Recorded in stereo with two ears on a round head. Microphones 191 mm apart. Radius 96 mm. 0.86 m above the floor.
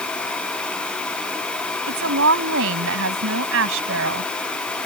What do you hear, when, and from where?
1.9 s a woman speaking: 65° right (ahead or behind)